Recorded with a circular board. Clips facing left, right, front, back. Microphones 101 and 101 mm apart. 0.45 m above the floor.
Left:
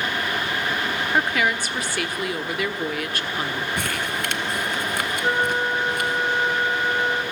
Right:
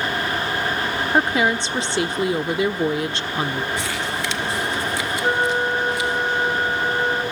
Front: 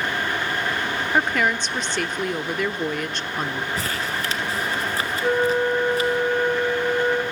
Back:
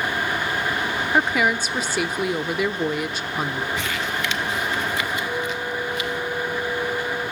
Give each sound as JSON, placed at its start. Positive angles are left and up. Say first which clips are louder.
{"t": 1.1, "sound": "a woman speaking", "louder": "right 4 dB, back 1 dB", "azimuth_deg": -105, "distance_m": 0.9}
{"t": 3.8, "sound": "crumpling", "louder": "right 1 dB, back 1 dB", "azimuth_deg": 50, "distance_m": 1.9}
{"t": 5.2, "sound": "a flute", "louder": "right 2 dB, front 7 dB", "azimuth_deg": -10, "distance_m": 2.0}